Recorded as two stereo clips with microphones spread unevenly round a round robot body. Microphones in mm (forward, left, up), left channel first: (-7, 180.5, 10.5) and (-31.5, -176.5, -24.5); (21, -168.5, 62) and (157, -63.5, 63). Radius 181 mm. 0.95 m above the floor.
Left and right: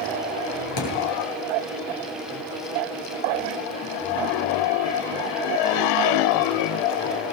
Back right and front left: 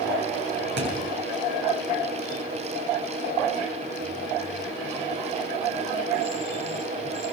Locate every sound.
0.8 s a thud: 50° left, 8 m